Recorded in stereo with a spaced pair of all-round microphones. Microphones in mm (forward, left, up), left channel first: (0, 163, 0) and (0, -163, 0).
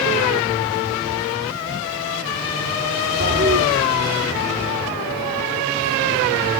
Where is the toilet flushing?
35° right (ahead or behind), 4 m.